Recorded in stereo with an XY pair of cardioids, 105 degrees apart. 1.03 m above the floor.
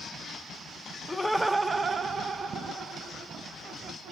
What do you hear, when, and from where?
1.1 s laughter: 15° left, 0.6 m; by 4.1 s 65° right, 2 m